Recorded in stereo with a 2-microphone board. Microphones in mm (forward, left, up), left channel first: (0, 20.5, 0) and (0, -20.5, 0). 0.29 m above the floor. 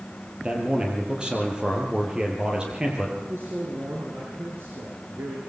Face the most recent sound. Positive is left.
turn(degrees=-75)  # may be behind; listen again after turning